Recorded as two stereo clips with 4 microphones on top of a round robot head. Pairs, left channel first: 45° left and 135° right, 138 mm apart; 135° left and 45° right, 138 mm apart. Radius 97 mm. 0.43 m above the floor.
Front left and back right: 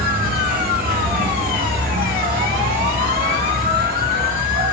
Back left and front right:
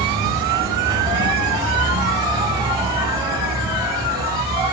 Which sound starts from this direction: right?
An insect, at 0.0 s.